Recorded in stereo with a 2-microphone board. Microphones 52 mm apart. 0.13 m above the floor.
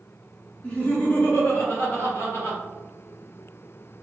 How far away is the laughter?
About 1.7 m.